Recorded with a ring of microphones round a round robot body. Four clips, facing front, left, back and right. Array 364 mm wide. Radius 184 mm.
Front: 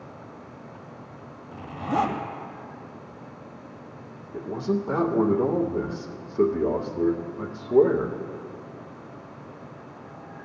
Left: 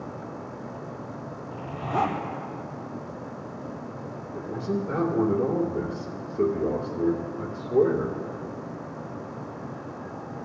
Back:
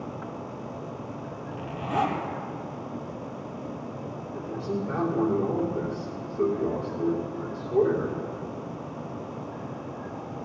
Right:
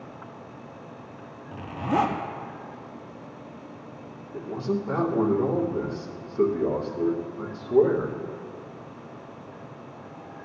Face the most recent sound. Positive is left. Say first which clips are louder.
# right 1 dB, front 5 dB
turn(degrees=-25)